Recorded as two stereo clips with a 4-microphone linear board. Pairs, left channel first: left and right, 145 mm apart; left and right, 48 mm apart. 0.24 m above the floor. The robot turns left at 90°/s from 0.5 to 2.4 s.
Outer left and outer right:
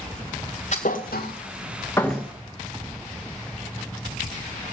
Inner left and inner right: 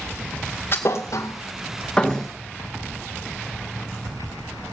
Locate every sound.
0.7 s a thud: 50° left (ahead or behind), 1.9 m; by 2.3 s 15° right (ahead or behind), 1.9 m